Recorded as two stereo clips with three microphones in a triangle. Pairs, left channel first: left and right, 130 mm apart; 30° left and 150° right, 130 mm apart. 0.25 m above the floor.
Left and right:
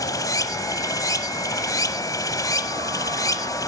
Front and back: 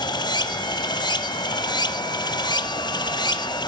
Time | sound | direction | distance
0.0 | running water | 50° left | 0.8 m